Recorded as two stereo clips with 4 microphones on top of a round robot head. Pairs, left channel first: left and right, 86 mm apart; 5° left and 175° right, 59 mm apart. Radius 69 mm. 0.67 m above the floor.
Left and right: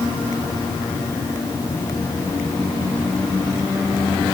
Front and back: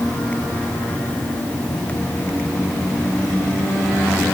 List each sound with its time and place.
Only background noise.